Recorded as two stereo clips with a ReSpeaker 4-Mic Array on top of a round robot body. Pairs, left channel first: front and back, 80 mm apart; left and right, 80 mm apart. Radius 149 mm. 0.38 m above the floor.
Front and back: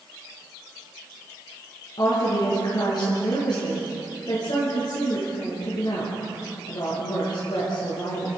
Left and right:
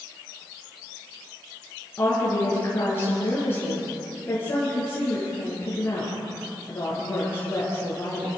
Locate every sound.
2.0 s a woman speaking: 30° left, 8.5 m